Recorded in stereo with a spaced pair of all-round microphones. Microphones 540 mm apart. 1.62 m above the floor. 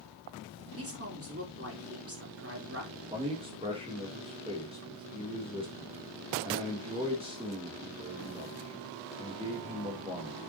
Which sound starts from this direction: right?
A woman speaking, at 0.8 s.